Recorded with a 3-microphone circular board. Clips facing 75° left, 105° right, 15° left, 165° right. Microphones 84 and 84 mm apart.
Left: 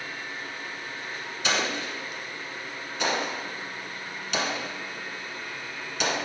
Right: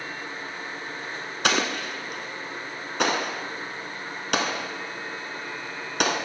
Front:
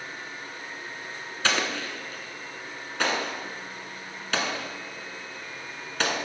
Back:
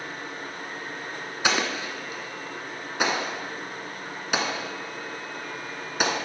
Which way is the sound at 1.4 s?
90° right.